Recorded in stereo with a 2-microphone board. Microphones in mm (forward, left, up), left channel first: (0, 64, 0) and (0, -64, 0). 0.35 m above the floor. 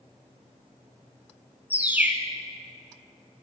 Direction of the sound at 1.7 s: 15° right (ahead or behind).